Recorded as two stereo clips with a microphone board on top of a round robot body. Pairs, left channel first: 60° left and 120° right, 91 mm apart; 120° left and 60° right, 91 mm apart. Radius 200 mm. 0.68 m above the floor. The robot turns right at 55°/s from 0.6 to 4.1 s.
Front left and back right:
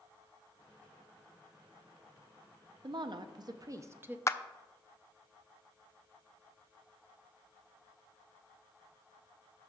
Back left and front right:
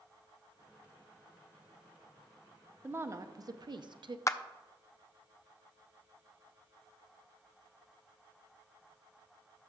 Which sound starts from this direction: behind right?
A woman speaking, at 2.8 s.